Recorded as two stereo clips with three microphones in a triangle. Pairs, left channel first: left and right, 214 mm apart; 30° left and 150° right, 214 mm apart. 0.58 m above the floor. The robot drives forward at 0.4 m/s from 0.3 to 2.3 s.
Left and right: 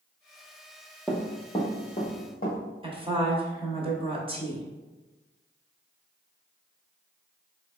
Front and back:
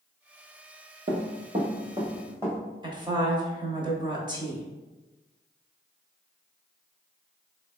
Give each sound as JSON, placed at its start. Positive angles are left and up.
{"t": 1.1, "sound": "running footsteps", "azimuth_deg": 175, "distance_m": 0.8}
{"t": 2.8, "sound": "a woman speaking", "azimuth_deg": -110, "distance_m": 0.7}